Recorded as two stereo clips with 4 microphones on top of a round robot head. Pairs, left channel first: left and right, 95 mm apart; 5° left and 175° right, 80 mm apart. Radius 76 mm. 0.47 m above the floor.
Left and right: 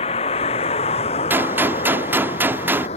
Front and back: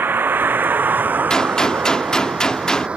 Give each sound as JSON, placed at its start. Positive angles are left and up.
{"t": 0.0, "sound": "a vehicle", "azimuth_deg": 120}
{"t": 1.3, "sound": "a gunshot", "azimuth_deg": -65}